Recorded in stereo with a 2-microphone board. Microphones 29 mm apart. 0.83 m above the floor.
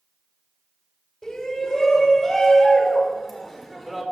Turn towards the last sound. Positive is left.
turn(degrees=0)  # may be behind; listen again after turning